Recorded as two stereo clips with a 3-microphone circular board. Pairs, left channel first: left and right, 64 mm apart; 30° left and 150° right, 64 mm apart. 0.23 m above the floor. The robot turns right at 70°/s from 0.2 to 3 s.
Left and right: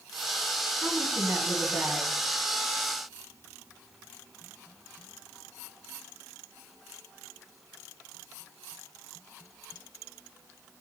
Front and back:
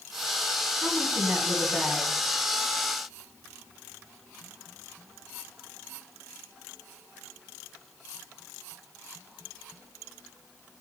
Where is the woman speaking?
125° right, 1.7 m; by 2.1 s 35° right, 1.7 m.